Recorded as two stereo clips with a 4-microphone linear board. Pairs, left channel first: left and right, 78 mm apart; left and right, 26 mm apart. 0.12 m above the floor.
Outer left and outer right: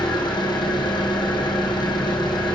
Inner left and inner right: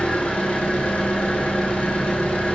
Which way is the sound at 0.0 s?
70° left (ahead or behind).